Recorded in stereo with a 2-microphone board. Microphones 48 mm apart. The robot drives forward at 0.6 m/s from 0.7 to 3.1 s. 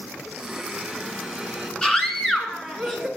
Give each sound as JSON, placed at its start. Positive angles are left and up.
{"t": 0.3, "sound": "a blender", "side_deg": 0, "distance_m": 1.4}
{"t": 1.8, "sound": "a scream", "side_deg": 15, "distance_m": 1.3}